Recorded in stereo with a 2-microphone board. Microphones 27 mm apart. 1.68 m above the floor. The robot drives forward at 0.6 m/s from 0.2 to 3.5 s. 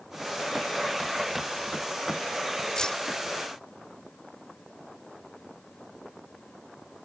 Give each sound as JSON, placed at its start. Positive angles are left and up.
{"t": 2.8, "sound": "keys jangling", "side_deg": 20}